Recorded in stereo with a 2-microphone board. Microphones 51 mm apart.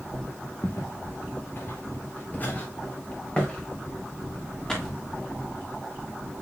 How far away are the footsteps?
About 1.9 m.